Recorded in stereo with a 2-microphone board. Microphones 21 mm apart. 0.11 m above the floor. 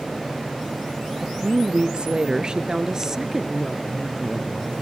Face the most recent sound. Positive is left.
turn(degrees=10)  # may be behind; listen again after turning